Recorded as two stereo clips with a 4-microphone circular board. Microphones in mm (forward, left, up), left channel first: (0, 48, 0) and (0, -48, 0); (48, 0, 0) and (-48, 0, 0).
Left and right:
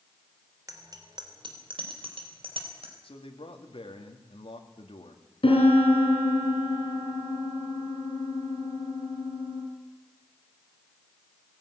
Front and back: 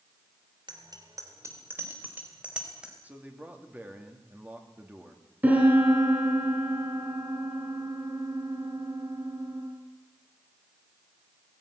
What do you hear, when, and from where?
0.7 s a bicycle bell: 145° right, 3 m; by 2.9 s 95° right, 4.5 m
3.0 s a man speaking: 105° left, 2.5 m
5.4 s a piano: 105° left, 5.5 m